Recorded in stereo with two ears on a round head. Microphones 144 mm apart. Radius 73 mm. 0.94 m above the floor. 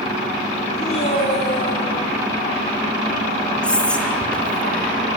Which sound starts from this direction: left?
A man speaking, at 0.8 s.